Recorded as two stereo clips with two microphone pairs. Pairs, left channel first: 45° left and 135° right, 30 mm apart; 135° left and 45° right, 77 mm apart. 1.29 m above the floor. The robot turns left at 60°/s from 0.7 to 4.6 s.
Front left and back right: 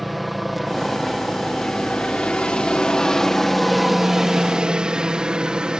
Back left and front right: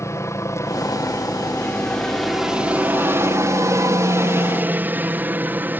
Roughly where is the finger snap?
I don't hear a finger snap.